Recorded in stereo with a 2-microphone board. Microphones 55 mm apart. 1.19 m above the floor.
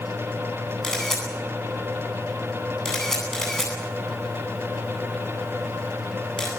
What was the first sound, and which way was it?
A camera shutter, 5° left (ahead or behind).